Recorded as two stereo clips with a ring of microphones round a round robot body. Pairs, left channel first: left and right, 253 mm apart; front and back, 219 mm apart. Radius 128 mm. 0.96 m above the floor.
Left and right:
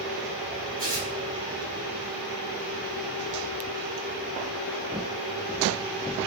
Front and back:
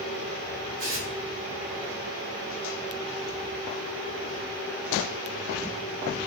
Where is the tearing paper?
135° right, 1.0 m.